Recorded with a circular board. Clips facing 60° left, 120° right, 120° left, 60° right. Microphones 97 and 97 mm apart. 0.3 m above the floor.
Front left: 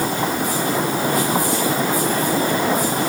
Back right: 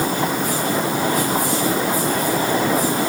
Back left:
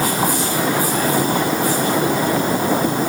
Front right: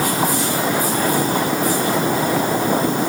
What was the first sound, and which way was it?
Only background noise.